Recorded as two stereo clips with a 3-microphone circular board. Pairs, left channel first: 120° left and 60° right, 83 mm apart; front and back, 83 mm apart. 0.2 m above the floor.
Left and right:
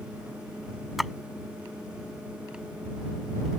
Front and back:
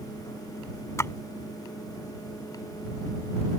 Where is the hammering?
No hammering in this recording.